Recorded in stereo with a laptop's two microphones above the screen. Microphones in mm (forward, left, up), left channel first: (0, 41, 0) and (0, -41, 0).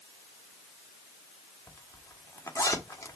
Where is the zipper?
40° left (ahead or behind), 1.8 m.